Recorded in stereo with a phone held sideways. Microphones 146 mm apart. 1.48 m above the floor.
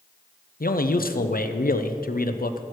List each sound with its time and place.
0.6 s a man speaking: 85° left, 0.6 m